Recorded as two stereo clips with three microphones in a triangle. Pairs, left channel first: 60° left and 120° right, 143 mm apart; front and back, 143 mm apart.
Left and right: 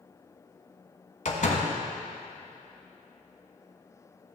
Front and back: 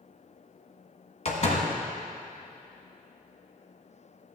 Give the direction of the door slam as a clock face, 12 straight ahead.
11 o'clock.